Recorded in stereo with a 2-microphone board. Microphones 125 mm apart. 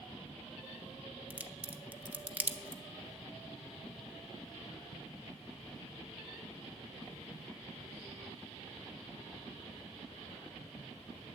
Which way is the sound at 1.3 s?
15° right (ahead or behind).